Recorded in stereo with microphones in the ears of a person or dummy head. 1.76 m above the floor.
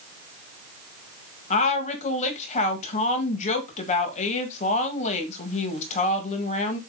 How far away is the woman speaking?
About 1.8 m.